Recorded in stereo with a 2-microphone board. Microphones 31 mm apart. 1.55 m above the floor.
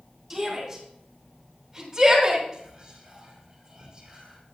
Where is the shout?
5° right (ahead or behind), 5 m; by 2.4 s 10° right (ahead or behind), 4 m.